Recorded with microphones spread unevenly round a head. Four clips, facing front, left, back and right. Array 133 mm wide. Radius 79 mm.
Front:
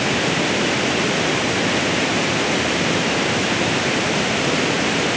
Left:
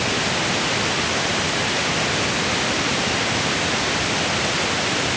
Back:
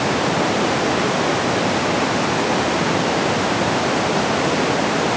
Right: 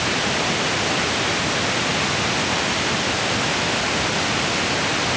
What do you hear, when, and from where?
Only background noise.